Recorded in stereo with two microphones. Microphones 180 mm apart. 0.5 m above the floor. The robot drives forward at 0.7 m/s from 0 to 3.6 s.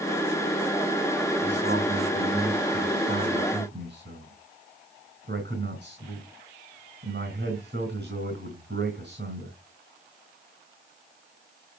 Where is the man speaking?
75° right (ahead or behind), 3.5 m; by 9.6 s 70° right (ahead or behind), 4 m.